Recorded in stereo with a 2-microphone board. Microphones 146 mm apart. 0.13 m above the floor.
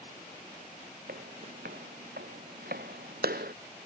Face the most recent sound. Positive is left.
turn(degrees=-80)